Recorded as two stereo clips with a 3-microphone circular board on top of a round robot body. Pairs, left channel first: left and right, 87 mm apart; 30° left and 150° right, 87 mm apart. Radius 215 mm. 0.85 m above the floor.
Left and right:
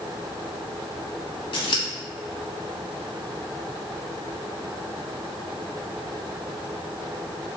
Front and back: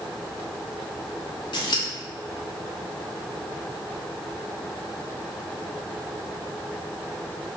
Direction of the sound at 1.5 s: 65° left.